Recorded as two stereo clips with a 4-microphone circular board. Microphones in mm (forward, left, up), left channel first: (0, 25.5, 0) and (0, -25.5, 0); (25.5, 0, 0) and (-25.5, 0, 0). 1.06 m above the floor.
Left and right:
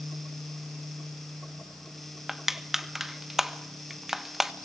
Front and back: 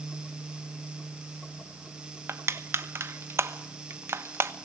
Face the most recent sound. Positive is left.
turn(degrees=-170)